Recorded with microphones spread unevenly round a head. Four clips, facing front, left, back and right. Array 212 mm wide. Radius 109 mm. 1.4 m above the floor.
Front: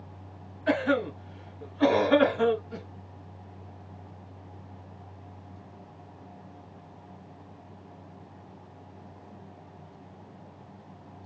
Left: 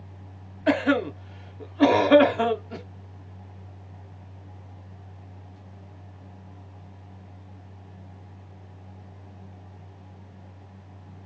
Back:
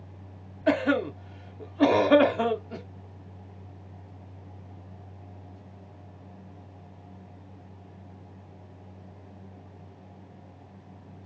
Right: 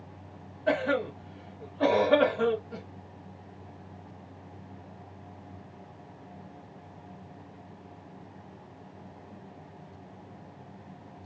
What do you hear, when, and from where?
0.7 s a cough: 110° left, 1.5 m